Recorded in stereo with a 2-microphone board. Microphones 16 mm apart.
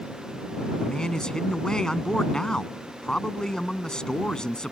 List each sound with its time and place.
0.8 s a man speaking: 55° left (ahead or behind)